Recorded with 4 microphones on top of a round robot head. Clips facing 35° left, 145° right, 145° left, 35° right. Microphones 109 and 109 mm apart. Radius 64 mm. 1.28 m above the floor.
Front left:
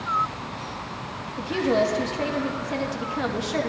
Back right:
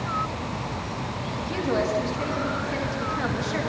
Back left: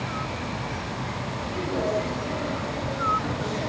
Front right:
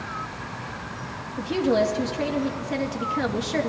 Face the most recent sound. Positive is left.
turn(degrees=-40)